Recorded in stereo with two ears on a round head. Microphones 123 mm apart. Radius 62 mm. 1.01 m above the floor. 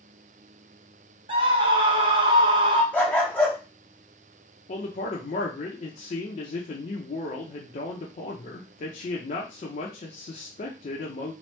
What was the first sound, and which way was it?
A scream, 35° right (ahead or behind).